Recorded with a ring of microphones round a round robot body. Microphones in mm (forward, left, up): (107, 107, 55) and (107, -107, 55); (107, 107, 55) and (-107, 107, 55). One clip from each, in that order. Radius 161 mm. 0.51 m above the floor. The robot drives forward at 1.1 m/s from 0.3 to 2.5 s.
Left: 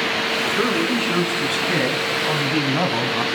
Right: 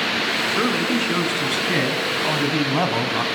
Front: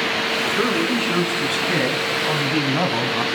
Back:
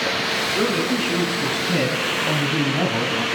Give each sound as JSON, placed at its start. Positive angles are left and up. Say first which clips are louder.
{"t": 0.5, "sound": "a man speaking", "louder": "left 1 dB, front 1 dB", "azimuth_deg": -15, "distance_m": 5.5}